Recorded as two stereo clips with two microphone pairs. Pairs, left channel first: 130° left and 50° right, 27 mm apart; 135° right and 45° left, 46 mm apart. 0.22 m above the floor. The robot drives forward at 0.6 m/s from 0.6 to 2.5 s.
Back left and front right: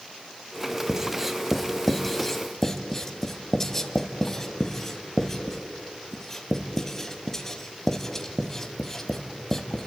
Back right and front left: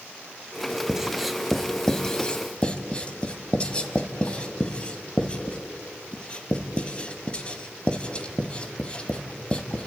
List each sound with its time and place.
0.9 s writing: 10° right, 1.1 m; by 9.9 s 175° right, 1.1 m